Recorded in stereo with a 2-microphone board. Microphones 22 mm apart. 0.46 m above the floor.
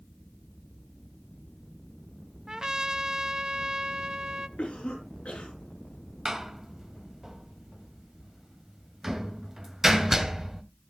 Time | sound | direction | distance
2.5 | a trumpet | 30° right (ahead or behind) | 0.6 m
4.6 | a cough | 70° left (ahead or behind) | 7 m
6.2 | a door slam | 20° right (ahead or behind) | 1.8 m